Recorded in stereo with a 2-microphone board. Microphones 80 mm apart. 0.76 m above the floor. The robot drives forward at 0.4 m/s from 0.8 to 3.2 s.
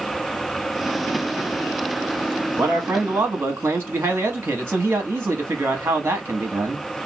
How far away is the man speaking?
About 0.7 m.